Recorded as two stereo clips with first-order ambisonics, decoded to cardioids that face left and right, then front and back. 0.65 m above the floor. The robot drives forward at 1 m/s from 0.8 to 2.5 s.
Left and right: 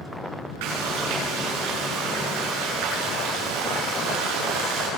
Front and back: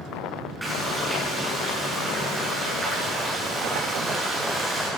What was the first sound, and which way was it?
Frying, 95° right.